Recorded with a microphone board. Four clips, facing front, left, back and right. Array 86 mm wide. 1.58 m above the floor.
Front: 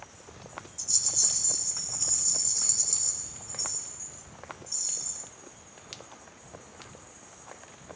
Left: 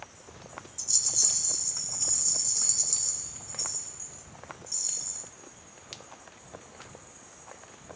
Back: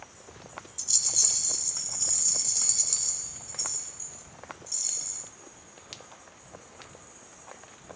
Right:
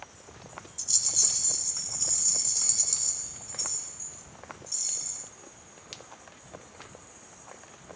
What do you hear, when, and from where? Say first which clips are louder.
0.8 s a rattle: even, even; 155° right, 1.1 m